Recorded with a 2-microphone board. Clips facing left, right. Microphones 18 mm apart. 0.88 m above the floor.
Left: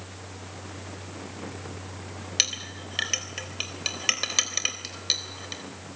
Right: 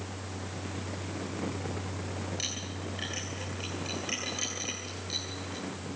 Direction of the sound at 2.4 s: 70° left (ahead or behind).